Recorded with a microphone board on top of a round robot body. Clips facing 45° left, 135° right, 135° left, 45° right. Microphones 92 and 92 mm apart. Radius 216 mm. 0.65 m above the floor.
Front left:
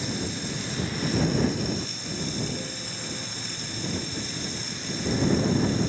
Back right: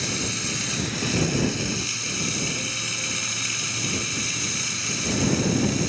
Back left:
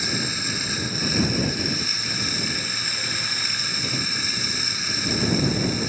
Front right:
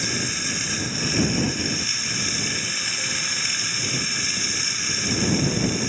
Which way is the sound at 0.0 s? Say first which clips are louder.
Back right 1 dB, even; 140° right.